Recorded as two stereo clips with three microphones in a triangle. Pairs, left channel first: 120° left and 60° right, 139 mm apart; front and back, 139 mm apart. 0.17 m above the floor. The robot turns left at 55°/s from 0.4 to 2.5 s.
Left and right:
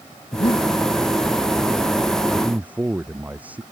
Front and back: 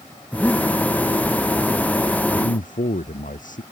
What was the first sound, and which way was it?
Breathing, 90° left.